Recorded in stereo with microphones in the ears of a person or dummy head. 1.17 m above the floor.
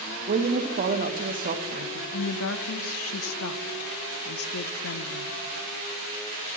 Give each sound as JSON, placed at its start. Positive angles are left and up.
{"t": 0.3, "sound": "a woman speaking", "side_deg": -40, "distance_m": 0.9}
{"t": 2.1, "sound": "a woman speaking", "side_deg": 75, "distance_m": 0.7}